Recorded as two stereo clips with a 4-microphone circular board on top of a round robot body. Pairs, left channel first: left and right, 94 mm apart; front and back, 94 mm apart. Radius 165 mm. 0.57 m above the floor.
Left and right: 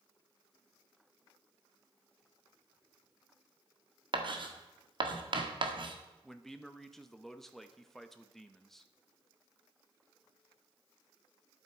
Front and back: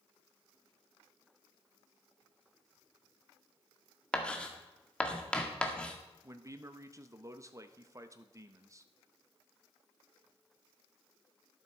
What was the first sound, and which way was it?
Writing, 80° right.